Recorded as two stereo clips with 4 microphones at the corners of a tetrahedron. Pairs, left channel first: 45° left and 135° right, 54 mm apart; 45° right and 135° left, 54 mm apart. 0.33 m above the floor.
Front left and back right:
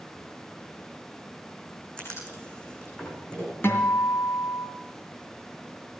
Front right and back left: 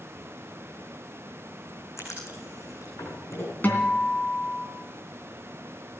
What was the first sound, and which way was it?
Writing, 25° right.